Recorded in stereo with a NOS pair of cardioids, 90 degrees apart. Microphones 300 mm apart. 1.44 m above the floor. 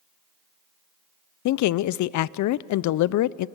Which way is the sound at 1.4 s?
70° left.